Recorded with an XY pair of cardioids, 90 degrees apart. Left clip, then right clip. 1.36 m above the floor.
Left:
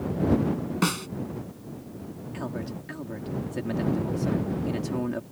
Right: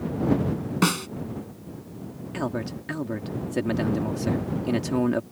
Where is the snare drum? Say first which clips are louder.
Right 4 dB; 25° right.